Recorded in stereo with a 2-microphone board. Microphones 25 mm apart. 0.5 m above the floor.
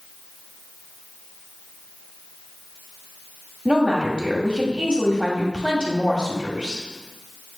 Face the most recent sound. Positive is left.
turn(degrees=-35)  # may be behind; listen again after turning